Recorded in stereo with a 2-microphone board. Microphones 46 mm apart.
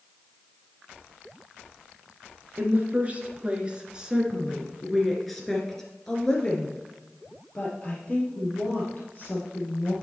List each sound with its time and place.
2.6 s a woman speaking: 35° right (ahead or behind), 2 m; by 9.9 s 40° left (ahead or behind), 3.5 m